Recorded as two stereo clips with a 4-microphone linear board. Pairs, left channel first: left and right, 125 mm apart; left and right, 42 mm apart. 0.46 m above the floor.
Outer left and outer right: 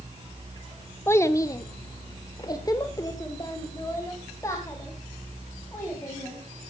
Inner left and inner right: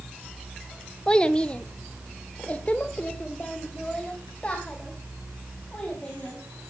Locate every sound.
1.1 s a child speaking: 20° left (ahead or behind), 0.9 m